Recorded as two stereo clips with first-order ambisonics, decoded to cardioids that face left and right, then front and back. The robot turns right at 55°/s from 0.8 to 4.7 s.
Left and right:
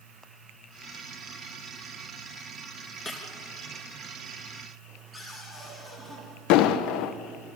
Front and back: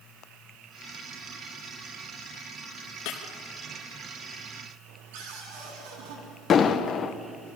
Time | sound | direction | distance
3.0 | breaking glass | 15° left | 4 m
5.1 | a cupboard door | 175° right | 8 m
6.5 | an explosion | 65° left | 1.1 m